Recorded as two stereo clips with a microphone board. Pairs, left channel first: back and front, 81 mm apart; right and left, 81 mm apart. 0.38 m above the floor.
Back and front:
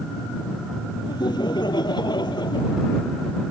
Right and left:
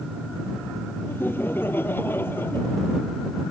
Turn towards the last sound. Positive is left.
turn(degrees=-155)